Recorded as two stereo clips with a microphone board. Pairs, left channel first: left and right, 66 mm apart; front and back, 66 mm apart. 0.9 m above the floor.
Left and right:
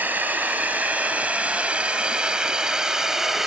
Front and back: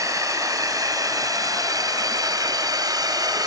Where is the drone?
155° right; by 3.5 s 175° right.